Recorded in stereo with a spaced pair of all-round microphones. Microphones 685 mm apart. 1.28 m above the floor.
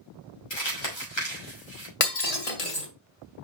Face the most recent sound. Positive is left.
turn(degrees=55)  # may be behind; listen again after turning